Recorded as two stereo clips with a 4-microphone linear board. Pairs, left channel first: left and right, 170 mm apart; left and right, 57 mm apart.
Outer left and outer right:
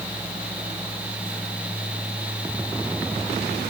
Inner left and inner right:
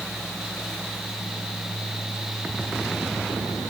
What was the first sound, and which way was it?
Only background noise.